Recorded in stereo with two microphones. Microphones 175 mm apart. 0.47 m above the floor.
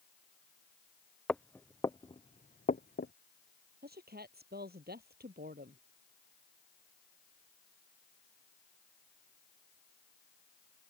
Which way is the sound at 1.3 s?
5° left (ahead or behind).